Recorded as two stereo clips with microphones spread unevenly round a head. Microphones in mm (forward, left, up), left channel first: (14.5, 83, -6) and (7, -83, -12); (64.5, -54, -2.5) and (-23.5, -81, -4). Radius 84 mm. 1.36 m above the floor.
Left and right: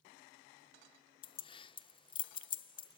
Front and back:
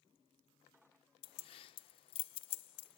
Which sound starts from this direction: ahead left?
Keys jangling, at 1.2 s.